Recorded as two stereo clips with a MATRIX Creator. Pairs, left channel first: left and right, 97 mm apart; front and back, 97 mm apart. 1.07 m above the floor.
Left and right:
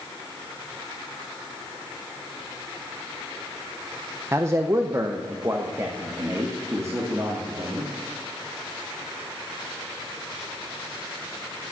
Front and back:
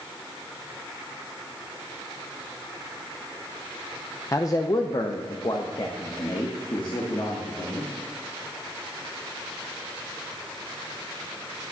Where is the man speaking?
40° right, 0.6 m; by 7.9 s 30° right, 2.5 m.